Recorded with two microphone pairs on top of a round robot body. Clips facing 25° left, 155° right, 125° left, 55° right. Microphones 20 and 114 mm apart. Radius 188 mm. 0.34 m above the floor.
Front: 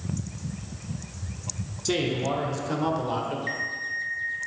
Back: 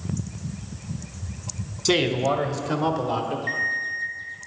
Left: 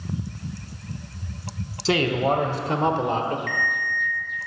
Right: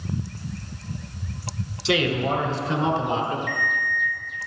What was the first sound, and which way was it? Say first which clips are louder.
A man speaking: back 5 dB, left 2 dB; 150° left.